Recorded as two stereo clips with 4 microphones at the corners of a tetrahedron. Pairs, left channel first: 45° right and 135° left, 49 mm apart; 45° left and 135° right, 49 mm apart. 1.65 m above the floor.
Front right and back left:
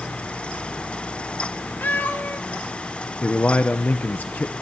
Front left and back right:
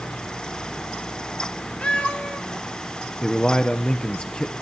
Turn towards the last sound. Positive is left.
turn(degrees=-15)